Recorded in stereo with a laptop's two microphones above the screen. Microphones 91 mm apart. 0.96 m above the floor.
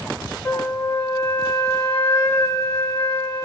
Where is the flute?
30° left (ahead or behind), 1.5 m.